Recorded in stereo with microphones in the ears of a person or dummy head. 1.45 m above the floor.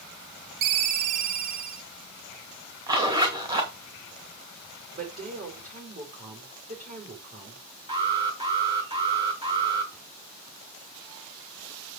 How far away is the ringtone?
About 0.8 m.